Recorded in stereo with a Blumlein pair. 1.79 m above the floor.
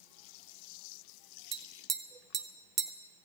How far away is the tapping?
About 0.9 m.